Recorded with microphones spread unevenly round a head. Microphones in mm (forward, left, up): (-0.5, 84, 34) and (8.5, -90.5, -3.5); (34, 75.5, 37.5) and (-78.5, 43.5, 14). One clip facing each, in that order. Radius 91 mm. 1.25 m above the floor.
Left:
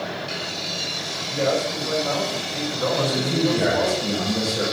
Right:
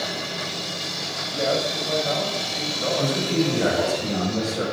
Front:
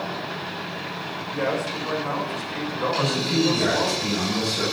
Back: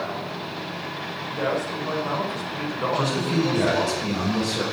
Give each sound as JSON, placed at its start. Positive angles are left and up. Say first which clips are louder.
{"t": 1.3, "sound": "a man speaking", "louder": "left 2 dB, even", "azimuth_deg": 120, "distance_m": 5.5}
{"t": 2.9, "sound": "a man speaking", "louder": "right 4 dB, back 1 dB", "azimuth_deg": 160, "distance_m": 5.5}